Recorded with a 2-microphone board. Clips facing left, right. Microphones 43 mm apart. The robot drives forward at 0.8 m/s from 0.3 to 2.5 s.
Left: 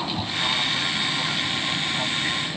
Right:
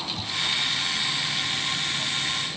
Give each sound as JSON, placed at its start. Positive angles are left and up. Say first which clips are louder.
{"t": 0.0, "sound": "an aircraft", "louder": "left 3 dB", "side_deg": 35}